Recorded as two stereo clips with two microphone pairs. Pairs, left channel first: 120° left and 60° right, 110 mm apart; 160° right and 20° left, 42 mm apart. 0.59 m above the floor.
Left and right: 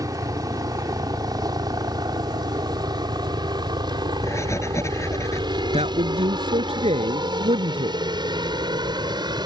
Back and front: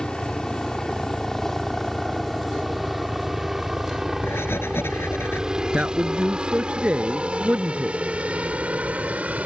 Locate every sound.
0.0 s a helicopter: 95° right; by 9.5 s 25° right
4.2 s writing: straight behind
5.7 s a man speaking: 40° right